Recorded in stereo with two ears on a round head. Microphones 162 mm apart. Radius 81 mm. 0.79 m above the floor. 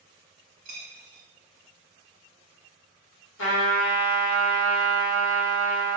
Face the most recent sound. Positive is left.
turn(degrees=80)